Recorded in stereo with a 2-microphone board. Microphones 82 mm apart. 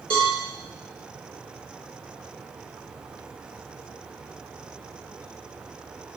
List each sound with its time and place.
0.1 s a cowbell: 60° right (ahead or behind), 2 m